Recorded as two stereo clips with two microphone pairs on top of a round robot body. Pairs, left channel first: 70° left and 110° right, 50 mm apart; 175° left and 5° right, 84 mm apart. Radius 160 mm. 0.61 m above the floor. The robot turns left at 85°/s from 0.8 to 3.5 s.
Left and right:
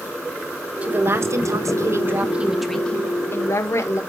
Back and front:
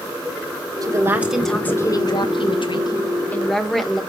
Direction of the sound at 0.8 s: 45° right.